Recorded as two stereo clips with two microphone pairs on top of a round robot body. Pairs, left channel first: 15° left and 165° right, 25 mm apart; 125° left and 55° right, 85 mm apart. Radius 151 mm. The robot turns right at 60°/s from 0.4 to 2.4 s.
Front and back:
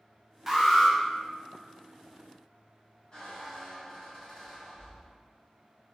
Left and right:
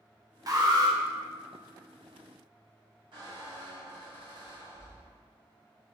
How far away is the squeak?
About 1.6 m.